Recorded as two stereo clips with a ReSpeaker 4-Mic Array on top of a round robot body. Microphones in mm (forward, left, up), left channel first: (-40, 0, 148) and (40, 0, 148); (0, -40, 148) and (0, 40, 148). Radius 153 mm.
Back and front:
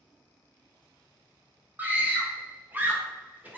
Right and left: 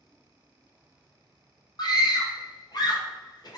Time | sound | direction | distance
1.8 | a scream | 65° right | 0.8 m